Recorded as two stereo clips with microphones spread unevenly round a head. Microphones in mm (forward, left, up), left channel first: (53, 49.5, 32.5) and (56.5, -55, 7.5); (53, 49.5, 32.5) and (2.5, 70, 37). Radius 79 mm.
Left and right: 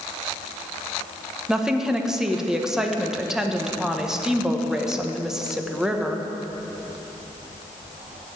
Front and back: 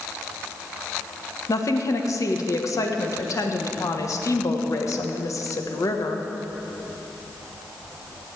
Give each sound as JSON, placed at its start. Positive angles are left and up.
{"t": 1.5, "sound": "a woman speaking", "azimuth_deg": 0, "distance_m": 1.4}